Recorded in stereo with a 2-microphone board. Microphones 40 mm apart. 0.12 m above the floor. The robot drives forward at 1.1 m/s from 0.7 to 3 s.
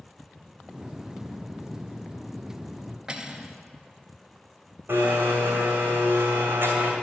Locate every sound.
3.1 s cutlery clinking: 15° right (ahead or behind), 1.0 m
4.9 s a blender: 60° right (ahead or behind), 2.5 m